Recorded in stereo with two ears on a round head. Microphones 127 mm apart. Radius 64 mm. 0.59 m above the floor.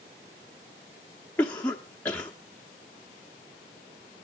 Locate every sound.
1.4 s a cough: 10° left (ahead or behind), 0.7 m